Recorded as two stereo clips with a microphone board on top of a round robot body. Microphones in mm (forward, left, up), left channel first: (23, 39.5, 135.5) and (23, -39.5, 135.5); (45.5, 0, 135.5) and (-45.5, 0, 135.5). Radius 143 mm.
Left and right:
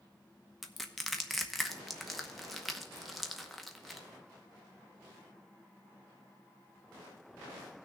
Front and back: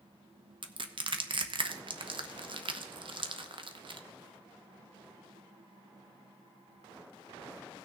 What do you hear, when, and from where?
0.6 s crushing: straight behind, 0.9 m